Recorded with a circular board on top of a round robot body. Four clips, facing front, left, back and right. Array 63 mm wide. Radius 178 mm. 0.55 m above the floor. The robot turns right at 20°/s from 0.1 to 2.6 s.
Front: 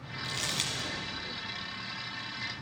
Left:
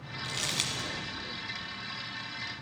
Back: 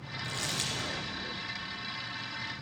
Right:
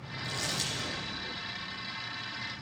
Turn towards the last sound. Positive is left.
turn(degrees=120)